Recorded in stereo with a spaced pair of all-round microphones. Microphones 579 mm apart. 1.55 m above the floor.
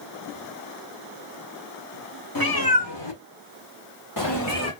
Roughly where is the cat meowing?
Left.